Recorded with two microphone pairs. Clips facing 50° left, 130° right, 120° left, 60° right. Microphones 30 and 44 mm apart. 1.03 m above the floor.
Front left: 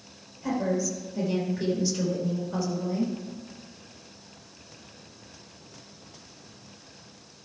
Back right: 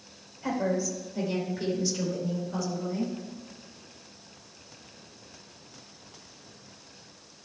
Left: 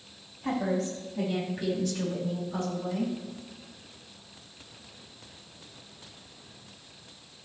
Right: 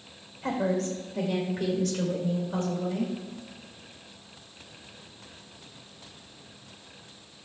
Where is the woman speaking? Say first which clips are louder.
Front left 1 dB, right 1 dB; 65° right, 4 m; by 3.1 s 15° right, 4 m.